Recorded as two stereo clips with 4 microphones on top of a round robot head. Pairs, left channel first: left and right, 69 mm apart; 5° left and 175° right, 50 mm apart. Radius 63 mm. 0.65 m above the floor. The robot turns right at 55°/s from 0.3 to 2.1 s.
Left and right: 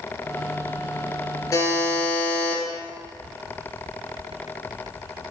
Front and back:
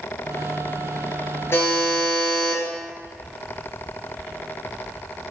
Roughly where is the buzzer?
Ahead left.